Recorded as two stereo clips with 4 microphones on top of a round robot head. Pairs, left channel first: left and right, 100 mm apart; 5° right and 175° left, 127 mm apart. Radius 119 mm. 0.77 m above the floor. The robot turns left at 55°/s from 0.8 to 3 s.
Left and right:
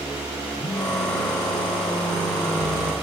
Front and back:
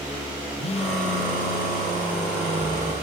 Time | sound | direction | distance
0.6 | a phone buzzing | 35° left | 0.7 m